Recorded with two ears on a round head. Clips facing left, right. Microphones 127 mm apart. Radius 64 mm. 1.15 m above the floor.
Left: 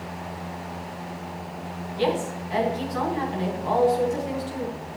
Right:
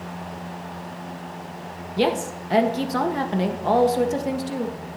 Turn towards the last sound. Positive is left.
turn(degrees=-75)  # may be behind; listen again after turning